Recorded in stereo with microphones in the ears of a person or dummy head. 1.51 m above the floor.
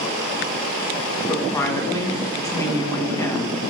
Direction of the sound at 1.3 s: 15° left (ahead or behind).